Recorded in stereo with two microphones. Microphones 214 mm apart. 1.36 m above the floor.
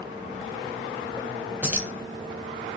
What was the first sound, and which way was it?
Keys jangling, 5° right (ahead or behind).